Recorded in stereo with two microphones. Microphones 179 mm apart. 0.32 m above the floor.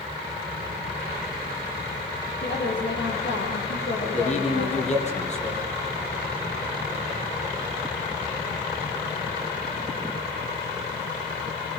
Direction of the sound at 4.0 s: 40° left (ahead or behind).